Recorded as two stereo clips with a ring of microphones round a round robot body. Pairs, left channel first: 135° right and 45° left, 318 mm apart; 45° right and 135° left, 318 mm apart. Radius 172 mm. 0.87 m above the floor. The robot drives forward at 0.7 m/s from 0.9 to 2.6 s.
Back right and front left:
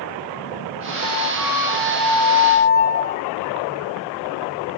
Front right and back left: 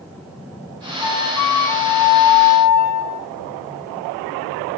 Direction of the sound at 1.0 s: 25° right.